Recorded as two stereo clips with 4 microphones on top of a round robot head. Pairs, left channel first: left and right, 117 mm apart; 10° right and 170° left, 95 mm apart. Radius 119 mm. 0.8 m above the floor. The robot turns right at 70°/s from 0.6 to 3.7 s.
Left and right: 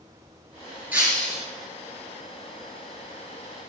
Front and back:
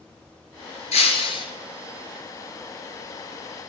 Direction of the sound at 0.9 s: 10° right.